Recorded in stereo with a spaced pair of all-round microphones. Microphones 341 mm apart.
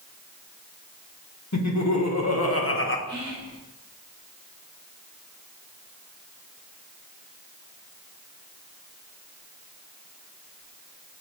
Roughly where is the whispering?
Centre.